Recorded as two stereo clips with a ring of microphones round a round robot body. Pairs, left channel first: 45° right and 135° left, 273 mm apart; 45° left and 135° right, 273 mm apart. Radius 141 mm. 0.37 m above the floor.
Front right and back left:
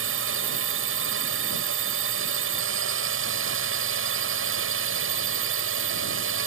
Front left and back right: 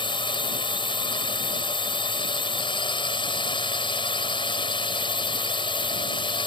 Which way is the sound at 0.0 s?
115° left.